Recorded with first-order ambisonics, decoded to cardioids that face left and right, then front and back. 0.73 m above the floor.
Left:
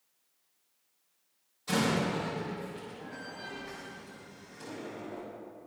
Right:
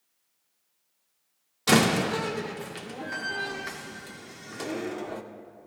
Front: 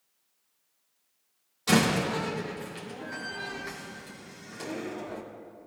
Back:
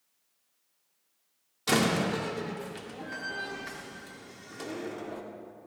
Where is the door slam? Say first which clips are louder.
Right 8 dB, front 2 dB; 95° right, 1.5 m.